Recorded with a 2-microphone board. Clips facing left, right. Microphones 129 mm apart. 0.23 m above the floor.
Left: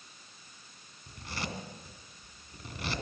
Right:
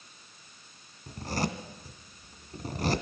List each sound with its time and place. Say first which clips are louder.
1.1 s a zipper: right 8 dB; 45° right (ahead or behind), 1.7 m